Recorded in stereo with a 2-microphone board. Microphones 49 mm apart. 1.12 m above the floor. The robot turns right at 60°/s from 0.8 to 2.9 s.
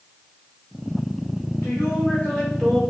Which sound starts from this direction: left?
A woman speaking, at 1.6 s.